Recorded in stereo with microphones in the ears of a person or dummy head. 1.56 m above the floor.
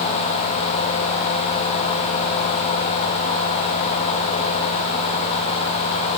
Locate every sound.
Only background noise.